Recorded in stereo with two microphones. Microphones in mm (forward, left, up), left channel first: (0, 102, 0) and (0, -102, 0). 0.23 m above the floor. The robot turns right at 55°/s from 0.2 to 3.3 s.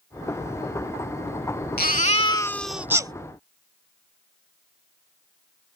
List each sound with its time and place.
1.8 s a baby crying: 130° left; by 3.1 s 155° right